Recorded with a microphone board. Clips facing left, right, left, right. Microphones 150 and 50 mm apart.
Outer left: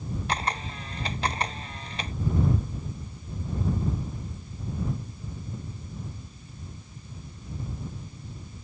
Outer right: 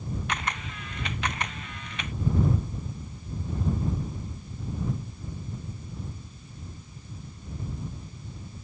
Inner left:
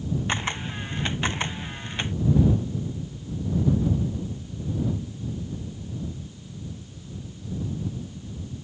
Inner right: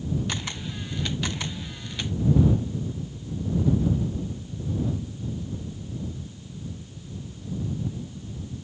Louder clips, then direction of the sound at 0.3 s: Outer left 6 dB, inner left 4 dB; 35° left (ahead or behind).